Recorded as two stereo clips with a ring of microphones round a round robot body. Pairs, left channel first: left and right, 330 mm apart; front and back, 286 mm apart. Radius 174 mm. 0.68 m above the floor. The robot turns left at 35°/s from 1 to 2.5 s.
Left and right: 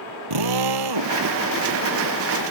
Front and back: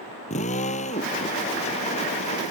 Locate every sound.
0.3 s a drill: 70° right; by 1.1 s 75° right